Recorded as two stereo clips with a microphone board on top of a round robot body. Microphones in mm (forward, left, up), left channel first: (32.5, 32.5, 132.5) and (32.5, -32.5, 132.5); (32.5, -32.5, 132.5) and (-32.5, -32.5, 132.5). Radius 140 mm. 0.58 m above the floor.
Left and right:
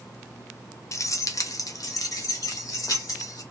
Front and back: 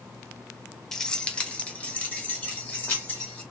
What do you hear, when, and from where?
0.9 s keys jangling: 80° left, 0.8 m; by 3.4 s 65° left, 2.5 m